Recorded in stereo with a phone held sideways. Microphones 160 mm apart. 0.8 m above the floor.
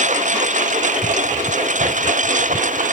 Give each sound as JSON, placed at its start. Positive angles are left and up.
{"t": 0.0, "sound": "a lawn mower", "side_deg": -50}